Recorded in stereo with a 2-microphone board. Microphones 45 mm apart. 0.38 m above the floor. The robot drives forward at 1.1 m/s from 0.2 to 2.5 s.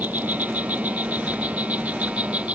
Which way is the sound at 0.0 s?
35° right (ahead or behind).